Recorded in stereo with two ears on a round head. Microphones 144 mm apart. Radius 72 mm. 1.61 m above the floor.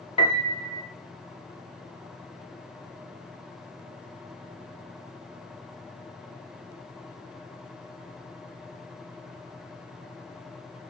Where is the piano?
35° left (ahead or behind), 2.5 m.